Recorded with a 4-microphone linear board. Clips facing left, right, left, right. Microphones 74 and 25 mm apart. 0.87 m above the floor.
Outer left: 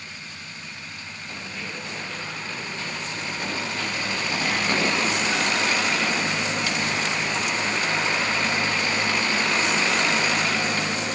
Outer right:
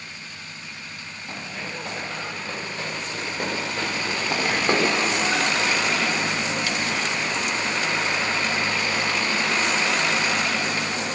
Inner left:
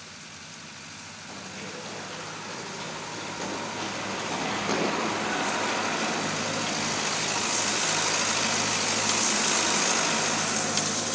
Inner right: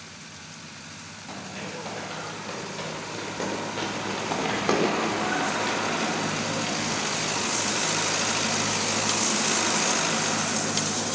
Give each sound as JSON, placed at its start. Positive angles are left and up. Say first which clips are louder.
{"t": 1.3, "sound": "running footsteps", "louder": "outer right 2 dB, inner right 3 dB", "side_deg": -45, "distance_m": 4.0}